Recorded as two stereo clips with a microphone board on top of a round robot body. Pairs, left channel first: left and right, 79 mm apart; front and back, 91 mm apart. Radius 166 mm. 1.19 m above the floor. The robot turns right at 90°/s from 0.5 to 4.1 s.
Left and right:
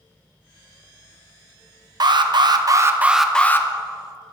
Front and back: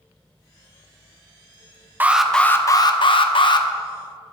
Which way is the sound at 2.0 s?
115° right.